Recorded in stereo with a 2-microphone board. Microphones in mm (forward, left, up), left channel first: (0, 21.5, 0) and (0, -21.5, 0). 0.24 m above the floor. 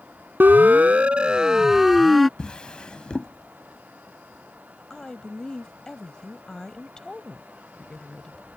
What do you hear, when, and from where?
0.4 s a siren: 50° right (ahead or behind); by 2.3 s centre (ahead or behind)
2.4 s a drawer: 25° left (ahead or behind)
4.9 s a woman speaking: 15° left (ahead or behind)